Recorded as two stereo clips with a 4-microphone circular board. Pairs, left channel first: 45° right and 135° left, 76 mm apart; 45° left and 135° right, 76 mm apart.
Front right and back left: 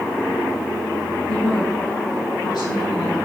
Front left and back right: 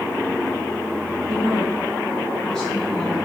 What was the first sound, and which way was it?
A woman speaking, 45° right.